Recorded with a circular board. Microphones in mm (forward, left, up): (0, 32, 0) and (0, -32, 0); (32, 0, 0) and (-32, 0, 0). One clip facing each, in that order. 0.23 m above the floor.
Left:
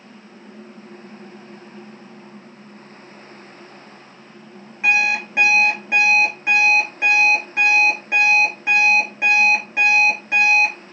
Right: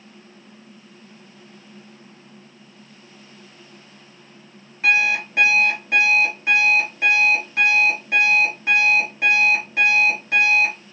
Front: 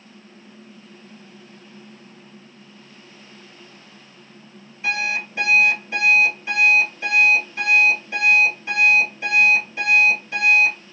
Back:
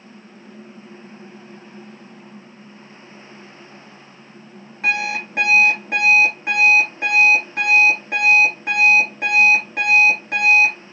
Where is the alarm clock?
160° left, 2.5 m.